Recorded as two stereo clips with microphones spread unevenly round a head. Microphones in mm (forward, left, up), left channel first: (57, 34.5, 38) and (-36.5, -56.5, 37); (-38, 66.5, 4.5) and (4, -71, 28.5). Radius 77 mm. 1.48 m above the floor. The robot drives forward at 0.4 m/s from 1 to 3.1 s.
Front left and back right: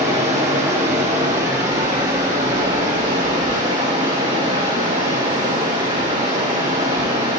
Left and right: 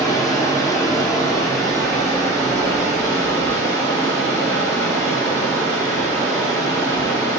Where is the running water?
Straight behind, 1.7 m.